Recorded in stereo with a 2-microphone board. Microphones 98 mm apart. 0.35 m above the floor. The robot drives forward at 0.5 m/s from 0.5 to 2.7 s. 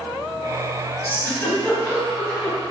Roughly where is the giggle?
Centre.